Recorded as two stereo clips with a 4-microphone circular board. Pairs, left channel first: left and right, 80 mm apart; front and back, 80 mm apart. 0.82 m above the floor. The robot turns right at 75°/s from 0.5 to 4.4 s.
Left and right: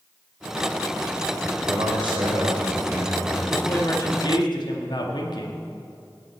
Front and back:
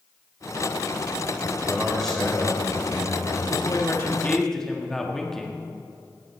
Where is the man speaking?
110° right, 4 m; by 3.4 s 15° left, 4 m.